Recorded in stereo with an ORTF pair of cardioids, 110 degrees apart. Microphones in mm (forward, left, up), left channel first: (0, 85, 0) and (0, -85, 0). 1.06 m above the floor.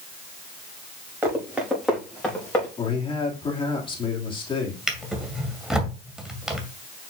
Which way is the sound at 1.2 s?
10° right.